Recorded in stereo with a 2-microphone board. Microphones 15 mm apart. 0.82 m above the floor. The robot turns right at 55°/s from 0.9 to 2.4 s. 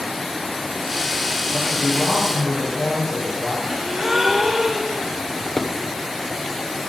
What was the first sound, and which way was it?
A man speaking, 165° right.